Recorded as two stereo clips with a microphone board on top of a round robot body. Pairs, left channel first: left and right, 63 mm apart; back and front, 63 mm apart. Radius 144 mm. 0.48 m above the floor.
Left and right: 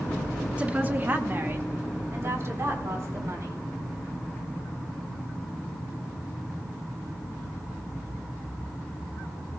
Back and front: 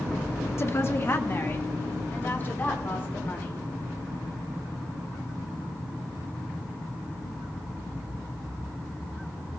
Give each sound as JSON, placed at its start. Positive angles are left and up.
{"t": 0.6, "sound": "a woman speaking", "azimuth_deg": -150, "distance_m": 1.2}